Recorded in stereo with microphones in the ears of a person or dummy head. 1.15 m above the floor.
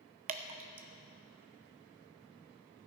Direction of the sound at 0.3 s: 35° right (ahead or behind).